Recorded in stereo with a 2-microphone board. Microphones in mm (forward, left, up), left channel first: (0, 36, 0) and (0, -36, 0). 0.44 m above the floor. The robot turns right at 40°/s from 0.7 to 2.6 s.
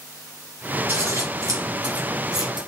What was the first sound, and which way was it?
Scissors, 35° right (ahead or behind).